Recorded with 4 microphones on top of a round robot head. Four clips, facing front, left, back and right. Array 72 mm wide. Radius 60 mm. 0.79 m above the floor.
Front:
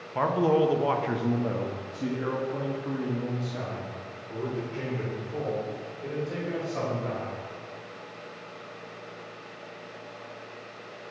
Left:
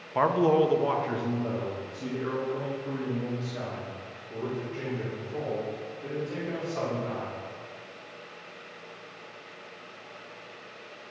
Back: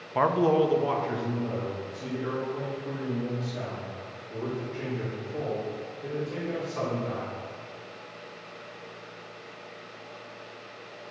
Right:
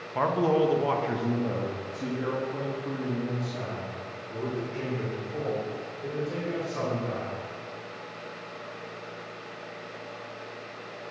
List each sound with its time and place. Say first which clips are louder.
0.1 s a man speaking: left 2 dB, back 1 dB; 140° left, 0.7 m; by 7.3 s 25° right, 4.5 m